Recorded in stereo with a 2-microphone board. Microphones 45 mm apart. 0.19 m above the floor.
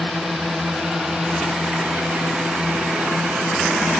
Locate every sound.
0.0 s a drone: 5° right (ahead or behind); by 4.0 s 40° right (ahead or behind)